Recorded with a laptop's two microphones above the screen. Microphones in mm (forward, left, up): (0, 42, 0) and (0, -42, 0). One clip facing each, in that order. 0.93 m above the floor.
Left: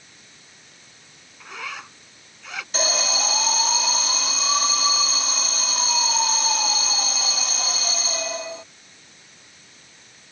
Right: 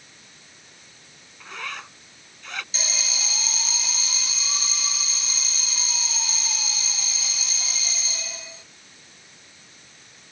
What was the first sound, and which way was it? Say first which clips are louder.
A zipper: even; 5° left (ahead or behind).